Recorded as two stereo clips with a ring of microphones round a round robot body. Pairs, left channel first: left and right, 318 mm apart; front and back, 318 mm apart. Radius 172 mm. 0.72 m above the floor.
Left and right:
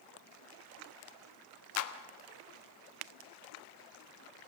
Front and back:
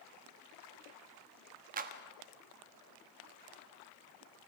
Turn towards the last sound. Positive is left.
turn(degrees=120)